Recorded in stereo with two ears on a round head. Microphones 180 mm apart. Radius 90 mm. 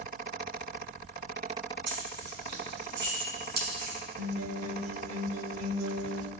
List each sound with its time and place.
1.9 s keys jangling: 60° right (ahead or behind), 5.5 m; by 4.0 s 45° right (ahead or behind), 4 m
4.2 s a guitar: 80° right, 1.0 m